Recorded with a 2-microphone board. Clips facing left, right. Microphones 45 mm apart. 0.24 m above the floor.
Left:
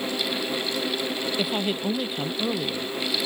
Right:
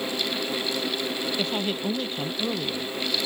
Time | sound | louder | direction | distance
1.4 | a woman speaking | left 2 dB | 10° left (ahead or behind) | ?